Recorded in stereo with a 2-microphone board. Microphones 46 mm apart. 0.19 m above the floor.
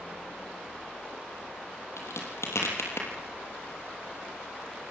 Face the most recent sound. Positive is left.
turn(degrees=75)  # may be behind; listen again after turning